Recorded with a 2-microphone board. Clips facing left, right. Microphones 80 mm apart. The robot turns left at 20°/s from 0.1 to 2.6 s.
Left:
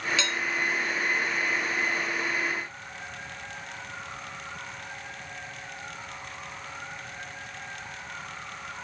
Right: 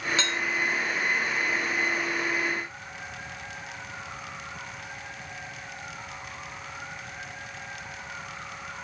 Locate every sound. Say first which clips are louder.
0.2 s dishes clattering: right 1 dB; 40° right (ahead or behind), 1.3 m